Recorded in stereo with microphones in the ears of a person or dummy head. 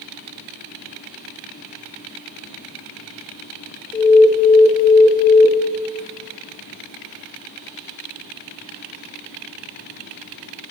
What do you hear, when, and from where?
3.9 s an alarm: 15° left (ahead or behind), 0.6 m